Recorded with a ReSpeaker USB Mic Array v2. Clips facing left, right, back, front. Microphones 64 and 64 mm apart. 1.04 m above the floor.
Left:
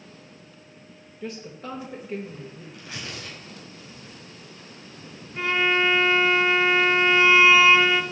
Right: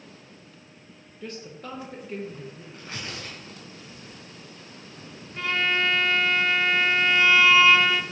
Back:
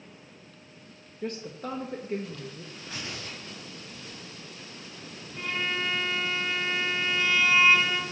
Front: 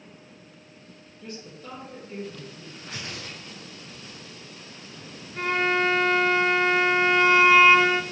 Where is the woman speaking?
170° left, 0.8 m.